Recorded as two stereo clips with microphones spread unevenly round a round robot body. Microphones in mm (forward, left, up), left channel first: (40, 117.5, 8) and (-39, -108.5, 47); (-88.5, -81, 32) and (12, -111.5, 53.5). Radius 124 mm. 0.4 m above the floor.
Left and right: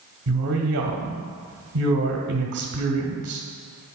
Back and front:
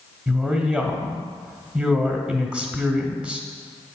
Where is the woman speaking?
110° right, 1.0 m.